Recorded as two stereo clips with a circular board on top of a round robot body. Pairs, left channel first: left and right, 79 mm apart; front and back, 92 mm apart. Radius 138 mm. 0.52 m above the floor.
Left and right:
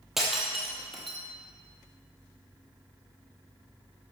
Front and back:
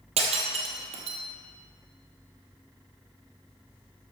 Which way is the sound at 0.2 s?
Straight behind.